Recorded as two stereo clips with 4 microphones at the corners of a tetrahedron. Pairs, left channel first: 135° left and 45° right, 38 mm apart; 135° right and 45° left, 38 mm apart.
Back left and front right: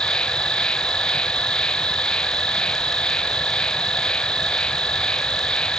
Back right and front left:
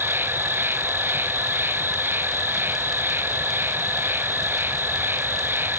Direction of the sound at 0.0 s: 70° left.